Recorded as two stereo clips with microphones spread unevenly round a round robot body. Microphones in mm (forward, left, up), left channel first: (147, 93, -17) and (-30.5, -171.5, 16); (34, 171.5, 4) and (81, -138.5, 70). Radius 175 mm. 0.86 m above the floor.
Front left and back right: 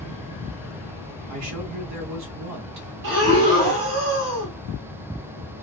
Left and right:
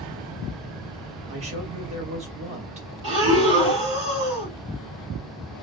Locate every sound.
1.3 s a man speaking: 155° right, 0.9 m
3.0 s breathing: 105° right, 1.4 m